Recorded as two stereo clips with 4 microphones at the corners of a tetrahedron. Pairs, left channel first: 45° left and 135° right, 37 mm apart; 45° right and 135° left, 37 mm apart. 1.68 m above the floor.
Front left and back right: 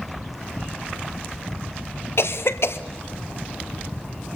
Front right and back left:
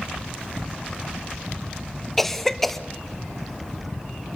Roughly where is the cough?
Ahead left.